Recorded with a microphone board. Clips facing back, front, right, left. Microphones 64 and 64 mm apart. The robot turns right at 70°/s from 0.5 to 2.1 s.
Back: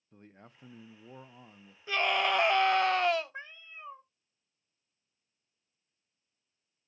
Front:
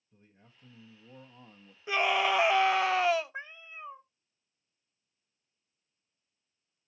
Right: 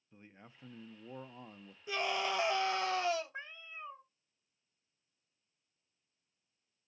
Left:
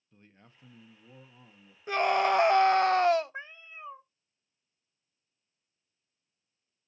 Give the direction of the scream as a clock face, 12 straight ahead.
10 o'clock.